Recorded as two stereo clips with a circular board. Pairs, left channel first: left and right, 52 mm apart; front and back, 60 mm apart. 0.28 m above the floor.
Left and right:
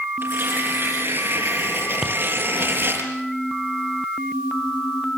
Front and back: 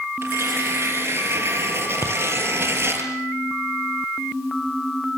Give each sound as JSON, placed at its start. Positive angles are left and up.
{"t": 0.2, "sound": "tearing paper", "azimuth_deg": -130, "distance_m": 6.5}
{"t": 2.0, "sound": "tapping", "azimuth_deg": -10, "distance_m": 3.5}